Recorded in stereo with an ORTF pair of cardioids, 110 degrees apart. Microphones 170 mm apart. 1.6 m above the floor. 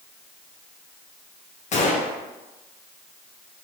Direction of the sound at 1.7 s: 45° left.